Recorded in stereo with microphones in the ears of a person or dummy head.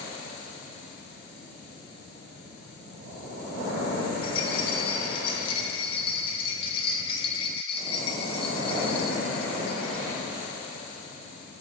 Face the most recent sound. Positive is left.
turn(degrees=30)  # may be behind; listen again after turning